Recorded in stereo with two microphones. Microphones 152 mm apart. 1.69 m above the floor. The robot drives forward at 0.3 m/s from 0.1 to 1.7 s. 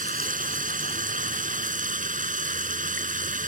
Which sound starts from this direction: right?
Running water, at 0.0 s.